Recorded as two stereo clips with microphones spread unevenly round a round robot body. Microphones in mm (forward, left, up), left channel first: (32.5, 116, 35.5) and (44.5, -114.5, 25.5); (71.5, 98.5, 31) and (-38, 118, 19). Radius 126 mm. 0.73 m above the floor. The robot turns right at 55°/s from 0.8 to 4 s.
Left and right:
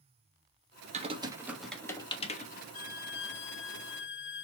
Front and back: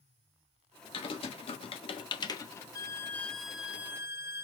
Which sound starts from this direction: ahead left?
A violin, at 2.7 s.